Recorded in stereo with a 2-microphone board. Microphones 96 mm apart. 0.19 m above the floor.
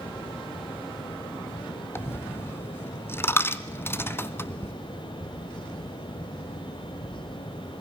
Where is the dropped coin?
25° left (ahead or behind), 0.9 m.